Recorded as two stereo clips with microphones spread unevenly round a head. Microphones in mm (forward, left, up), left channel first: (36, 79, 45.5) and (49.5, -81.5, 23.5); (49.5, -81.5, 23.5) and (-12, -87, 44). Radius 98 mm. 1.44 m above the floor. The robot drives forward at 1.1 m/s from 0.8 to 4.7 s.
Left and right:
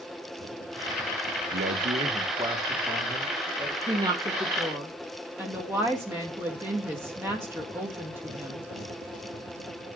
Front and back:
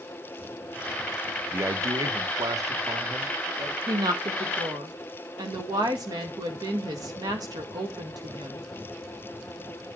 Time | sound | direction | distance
1.5 | a man speaking | 120° right | 0.9 m
3.9 | a woman speaking | 150° right | 1.3 m